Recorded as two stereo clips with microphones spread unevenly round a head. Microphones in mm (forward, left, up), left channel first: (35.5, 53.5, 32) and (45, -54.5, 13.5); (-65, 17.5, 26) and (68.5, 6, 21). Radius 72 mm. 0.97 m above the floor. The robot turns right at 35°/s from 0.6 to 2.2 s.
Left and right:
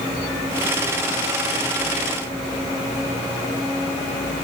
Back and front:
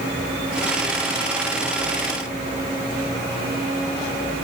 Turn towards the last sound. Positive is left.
No sound to turn to.